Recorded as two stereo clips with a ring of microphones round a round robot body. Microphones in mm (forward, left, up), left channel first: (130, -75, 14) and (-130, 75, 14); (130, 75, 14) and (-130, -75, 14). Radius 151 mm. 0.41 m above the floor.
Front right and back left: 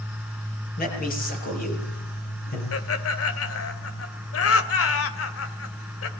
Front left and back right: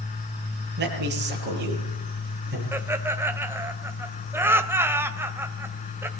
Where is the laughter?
70° right, 1.6 m.